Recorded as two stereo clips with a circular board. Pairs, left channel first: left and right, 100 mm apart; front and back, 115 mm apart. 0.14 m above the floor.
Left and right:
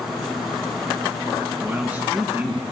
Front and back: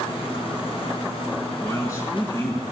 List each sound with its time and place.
1.6 s a man speaking: 30° right, 1.3 m